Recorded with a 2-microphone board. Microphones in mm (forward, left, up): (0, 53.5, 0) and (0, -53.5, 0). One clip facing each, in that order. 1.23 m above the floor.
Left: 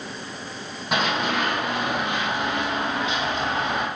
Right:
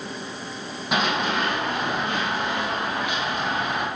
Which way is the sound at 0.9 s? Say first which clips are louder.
Even; centre (ahead or behind).